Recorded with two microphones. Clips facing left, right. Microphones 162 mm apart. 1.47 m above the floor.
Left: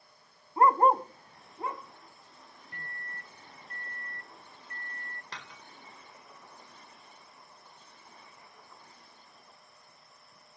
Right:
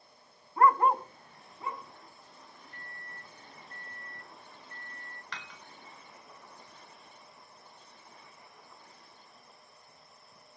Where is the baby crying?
No baby crying in this recording.